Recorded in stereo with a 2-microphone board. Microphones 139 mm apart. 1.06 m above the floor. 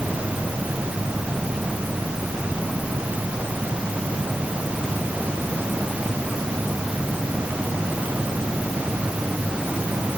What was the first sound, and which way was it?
Only background noise.